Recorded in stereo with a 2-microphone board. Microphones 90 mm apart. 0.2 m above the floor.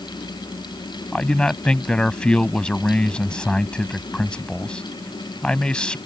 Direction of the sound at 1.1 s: 10° left (ahead or behind).